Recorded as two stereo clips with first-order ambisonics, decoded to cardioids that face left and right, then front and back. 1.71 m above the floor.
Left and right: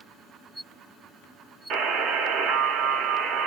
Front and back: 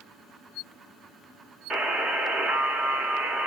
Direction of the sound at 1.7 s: 120° right.